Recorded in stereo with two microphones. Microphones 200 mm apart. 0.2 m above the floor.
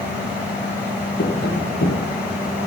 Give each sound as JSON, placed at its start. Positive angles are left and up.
{"t": 1.2, "sound": "tapping", "side_deg": 60, "distance_m": 4.5}